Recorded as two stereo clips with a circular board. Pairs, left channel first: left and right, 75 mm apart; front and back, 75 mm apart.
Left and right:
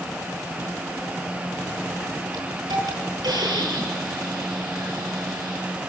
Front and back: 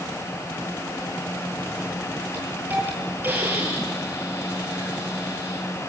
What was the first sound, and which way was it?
A hiss, 115° right.